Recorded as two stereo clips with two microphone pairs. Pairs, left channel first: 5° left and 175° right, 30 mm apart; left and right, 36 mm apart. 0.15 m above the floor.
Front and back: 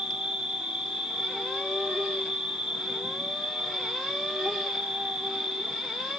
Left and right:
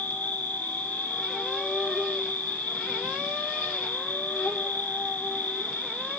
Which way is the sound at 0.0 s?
135° left.